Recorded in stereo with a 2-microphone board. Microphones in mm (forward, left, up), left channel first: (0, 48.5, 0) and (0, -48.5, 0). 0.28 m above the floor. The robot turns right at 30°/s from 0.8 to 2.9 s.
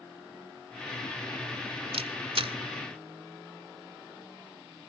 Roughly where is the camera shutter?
Right.